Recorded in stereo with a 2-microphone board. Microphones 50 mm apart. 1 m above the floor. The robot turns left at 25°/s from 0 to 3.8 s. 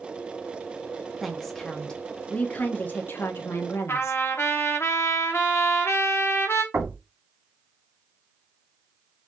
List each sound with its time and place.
1.2 s a woman speaking: straight behind, 1.3 m; by 4.2 s 115° left, 1.3 m
3.9 s a trumpet: 55° left (ahead or behind), 1.2 m
6.7 s knocking: 65° right (ahead or behind), 2 m